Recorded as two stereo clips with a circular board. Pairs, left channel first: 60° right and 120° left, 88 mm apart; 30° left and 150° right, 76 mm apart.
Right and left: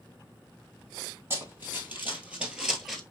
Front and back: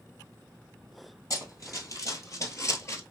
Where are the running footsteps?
65° left, 1.7 m; by 3.0 s 35° left, 1.1 m.